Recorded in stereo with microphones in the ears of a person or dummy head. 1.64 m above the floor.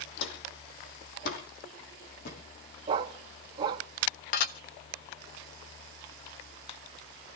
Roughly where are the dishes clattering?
Left.